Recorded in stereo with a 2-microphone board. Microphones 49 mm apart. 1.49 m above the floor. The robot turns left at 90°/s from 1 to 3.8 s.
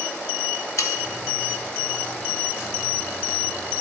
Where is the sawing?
85° left, 0.7 m.